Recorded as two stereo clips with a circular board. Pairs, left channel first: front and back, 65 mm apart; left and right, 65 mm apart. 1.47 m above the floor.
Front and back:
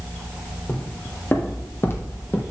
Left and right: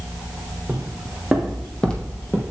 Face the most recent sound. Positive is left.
turn(degrees=40)